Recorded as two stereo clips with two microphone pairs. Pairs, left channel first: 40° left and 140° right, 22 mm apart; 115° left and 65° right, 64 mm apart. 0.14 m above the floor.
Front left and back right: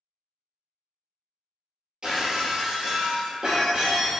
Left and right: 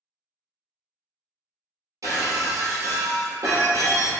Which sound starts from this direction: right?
Breaking glass, at 2.0 s.